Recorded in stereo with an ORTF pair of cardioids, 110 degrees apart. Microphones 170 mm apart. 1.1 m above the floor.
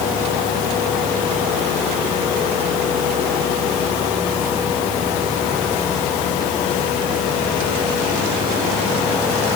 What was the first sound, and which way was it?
Only background noise.